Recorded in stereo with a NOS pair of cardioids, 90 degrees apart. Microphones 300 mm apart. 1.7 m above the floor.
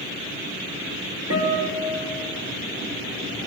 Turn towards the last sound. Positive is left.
turn(degrees=-55)